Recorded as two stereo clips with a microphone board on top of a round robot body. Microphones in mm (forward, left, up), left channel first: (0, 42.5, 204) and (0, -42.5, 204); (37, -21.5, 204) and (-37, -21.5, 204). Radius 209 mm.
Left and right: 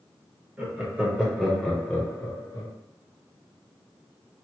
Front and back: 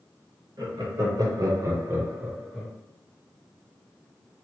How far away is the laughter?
About 1.6 m.